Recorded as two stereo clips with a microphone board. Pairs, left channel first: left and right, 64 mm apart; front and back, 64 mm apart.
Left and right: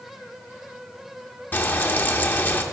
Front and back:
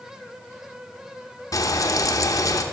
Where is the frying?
30° left, 0.7 m.